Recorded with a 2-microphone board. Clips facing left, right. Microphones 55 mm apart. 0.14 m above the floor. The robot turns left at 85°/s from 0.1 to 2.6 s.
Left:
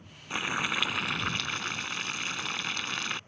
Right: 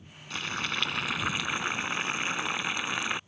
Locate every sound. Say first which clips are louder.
0.3 s boiling: left 2 dB; 20° left (ahead or behind); by 3.2 s 15° right (ahead or behind)